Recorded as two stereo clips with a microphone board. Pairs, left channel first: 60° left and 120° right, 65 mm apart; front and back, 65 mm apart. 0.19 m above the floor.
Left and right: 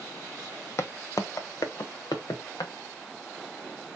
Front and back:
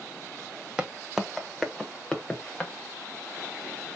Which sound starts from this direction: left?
Footsteps, at 0.8 s.